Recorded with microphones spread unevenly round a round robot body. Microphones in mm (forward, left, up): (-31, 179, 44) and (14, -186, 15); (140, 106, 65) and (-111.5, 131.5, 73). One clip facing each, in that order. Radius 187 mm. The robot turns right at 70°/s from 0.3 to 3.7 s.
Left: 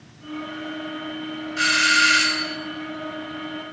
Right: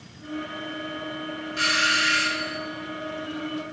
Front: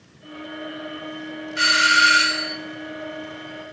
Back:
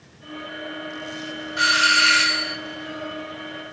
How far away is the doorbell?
About 2.5 m.